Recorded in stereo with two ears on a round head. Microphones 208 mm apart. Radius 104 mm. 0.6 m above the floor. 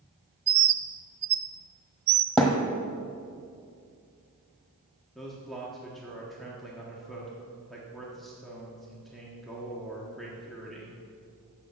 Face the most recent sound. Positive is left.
turn(degrees=0)  # may be behind; listen again after turning